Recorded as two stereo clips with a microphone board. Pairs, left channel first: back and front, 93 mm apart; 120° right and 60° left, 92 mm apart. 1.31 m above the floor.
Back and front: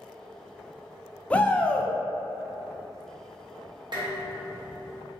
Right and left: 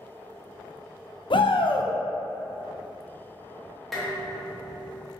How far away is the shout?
About 0.5 m.